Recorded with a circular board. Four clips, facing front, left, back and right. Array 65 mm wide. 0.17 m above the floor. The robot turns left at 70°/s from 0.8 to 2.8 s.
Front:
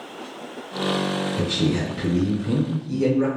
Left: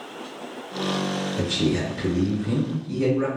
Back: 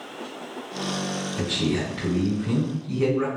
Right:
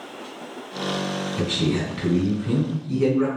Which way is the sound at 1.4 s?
75° right.